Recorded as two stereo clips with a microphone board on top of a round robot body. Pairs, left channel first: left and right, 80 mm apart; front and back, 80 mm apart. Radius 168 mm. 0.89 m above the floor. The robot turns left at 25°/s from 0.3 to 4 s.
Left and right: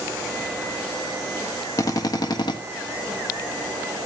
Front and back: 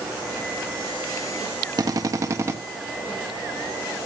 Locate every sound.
1.8 s a drill: 140° left, 1.2 m; by 2.6 s 120° left, 1.2 m